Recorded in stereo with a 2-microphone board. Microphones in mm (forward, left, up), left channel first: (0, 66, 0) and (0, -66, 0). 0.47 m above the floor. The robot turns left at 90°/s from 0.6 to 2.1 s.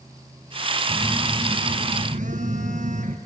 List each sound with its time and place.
0.9 s a phone buzzing: 5° left, 2.5 m; by 3.2 s 105° right, 2.5 m